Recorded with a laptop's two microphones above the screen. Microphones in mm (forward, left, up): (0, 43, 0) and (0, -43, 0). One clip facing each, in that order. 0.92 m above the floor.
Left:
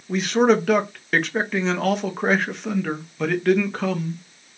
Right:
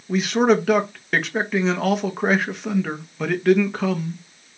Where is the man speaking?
Centre (ahead or behind), 0.7 m.